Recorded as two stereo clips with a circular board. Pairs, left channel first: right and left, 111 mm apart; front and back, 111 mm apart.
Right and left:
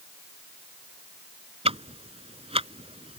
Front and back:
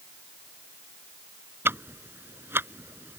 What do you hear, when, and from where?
1.6 s ticking: 110° left